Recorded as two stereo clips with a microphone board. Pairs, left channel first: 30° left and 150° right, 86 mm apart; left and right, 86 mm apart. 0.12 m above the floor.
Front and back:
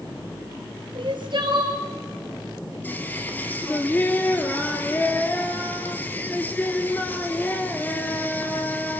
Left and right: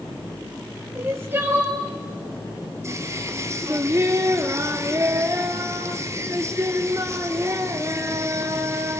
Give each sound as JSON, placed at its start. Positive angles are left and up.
{"t": 0.9, "sound": "crying", "azimuth_deg": -150, "distance_m": 3.0}
{"t": 2.8, "sound": "singing", "azimuth_deg": -35, "distance_m": 1.4}